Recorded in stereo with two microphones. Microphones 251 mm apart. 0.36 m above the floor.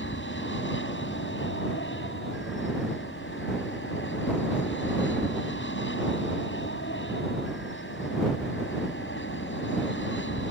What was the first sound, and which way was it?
An aircraft, 55° left (ahead or behind).